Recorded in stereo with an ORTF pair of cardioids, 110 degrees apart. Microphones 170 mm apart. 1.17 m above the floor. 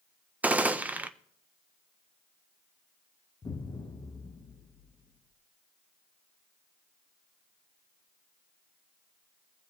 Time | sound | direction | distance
0.4 | a gunshot | 10° right | 0.7 m
3.4 | an explosion | 25° left | 1.1 m